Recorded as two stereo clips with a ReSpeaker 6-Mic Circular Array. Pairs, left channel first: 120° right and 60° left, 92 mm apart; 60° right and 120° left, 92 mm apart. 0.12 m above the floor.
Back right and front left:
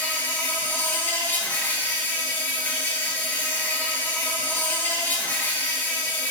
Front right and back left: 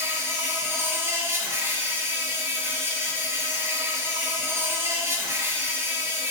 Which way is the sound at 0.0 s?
175° left.